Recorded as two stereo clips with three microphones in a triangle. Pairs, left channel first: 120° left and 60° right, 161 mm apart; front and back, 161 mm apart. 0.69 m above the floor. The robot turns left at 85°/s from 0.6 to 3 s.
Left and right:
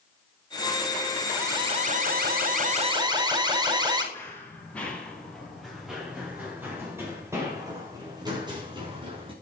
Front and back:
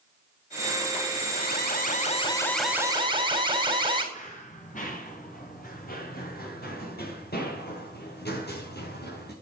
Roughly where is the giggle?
No giggle in this recording.